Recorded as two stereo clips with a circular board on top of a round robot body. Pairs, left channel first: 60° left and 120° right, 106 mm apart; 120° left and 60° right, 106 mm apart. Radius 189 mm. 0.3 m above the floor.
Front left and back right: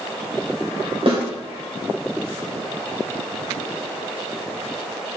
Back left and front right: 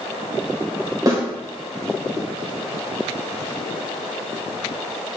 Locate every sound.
1.1 s a snare drum: 110° right, 2.5 m